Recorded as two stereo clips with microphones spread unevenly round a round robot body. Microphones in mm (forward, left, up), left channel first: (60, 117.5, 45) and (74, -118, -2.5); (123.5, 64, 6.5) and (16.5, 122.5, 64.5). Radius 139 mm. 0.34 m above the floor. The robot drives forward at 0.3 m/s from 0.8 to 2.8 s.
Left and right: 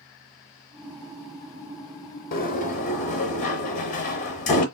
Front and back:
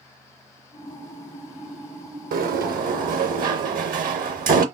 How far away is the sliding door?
About 0.5 m.